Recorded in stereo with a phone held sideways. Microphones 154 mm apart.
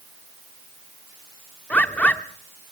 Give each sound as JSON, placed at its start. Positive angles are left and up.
{"t": 1.7, "sound": "a bird", "side_deg": 10, "distance_m": 0.9}